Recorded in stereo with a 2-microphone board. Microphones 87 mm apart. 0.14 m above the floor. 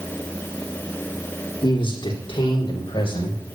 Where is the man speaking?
70° left (ahead or behind), 7 m; by 3.4 s 80° left, 7 m.